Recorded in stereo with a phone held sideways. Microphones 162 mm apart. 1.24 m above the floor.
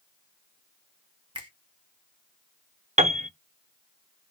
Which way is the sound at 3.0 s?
45° right (ahead or behind).